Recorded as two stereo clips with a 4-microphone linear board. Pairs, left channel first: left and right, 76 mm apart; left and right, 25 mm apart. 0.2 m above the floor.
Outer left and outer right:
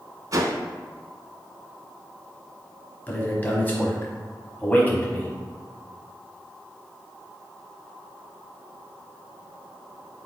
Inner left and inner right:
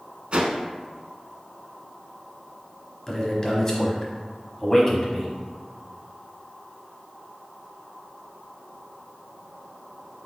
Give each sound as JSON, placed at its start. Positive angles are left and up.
{"t": 0.3, "sound": "a whoosh", "side_deg": -50, "distance_m": 0.6}
{"t": 3.1, "sound": "a man speaking", "side_deg": 20, "distance_m": 1.0}